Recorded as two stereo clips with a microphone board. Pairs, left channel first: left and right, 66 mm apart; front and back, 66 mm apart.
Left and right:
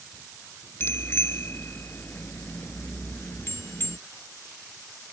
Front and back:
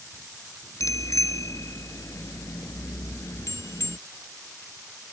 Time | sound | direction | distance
0.8 | a bicycle bell | 35° left | ?